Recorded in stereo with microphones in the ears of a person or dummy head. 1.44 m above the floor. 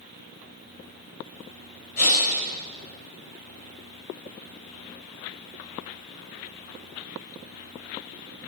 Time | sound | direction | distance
2.0 | breathing | 55° left (ahead or behind) | 4 m